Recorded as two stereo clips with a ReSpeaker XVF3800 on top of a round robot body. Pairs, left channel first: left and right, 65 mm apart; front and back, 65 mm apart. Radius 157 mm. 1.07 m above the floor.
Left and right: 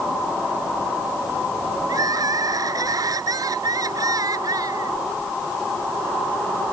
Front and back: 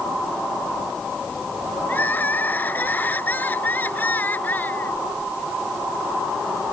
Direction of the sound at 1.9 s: 65° right.